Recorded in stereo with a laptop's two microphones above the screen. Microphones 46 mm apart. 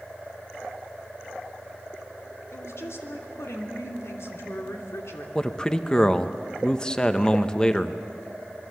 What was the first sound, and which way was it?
A woman speaking, 75° left (ahead or behind).